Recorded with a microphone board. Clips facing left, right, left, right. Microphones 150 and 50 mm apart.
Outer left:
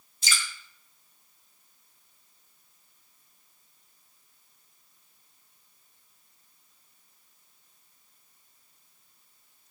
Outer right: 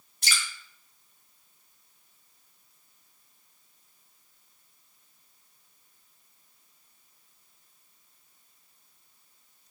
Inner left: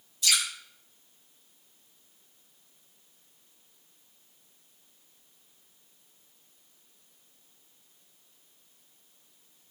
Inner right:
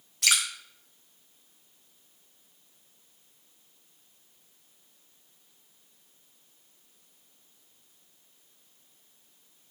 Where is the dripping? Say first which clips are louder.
Even, inner right 2 dB; 65° right (ahead or behind), 3 m.